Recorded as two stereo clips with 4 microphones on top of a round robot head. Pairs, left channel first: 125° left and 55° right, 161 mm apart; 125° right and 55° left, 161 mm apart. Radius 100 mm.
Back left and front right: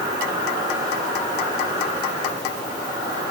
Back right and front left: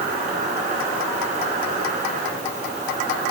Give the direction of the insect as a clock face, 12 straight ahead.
12 o'clock.